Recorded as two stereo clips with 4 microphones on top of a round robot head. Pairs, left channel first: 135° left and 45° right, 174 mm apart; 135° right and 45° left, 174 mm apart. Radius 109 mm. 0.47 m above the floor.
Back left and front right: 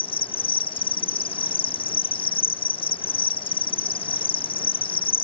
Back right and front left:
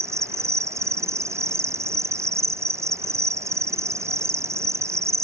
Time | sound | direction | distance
0.0 | an insect | 105° left | ?